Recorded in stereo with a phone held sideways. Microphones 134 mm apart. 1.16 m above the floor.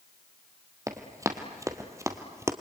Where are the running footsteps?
25° right (ahead or behind), 1.9 m; by 2.5 s 20° right (ahead or behind), 1.3 m.